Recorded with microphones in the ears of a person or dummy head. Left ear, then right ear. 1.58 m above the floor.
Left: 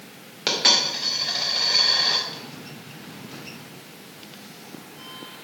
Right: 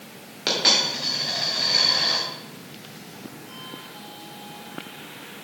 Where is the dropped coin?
15° left (ahead or behind), 2 m.